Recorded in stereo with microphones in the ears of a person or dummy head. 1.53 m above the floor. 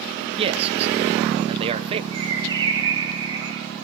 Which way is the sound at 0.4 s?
35° right (ahead or behind).